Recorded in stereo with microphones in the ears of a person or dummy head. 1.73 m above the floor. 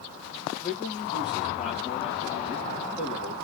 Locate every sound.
0.6 s a man speaking: 5° left (ahead or behind), 3.5 m